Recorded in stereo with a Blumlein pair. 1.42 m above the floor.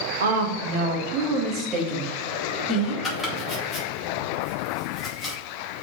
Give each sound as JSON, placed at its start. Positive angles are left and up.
{"t": 0.2, "sound": "a woman speaking", "azimuth_deg": -60, "distance_m": 1.2}
{"t": 3.0, "sound": "chopping", "azimuth_deg": 10, "distance_m": 2.0}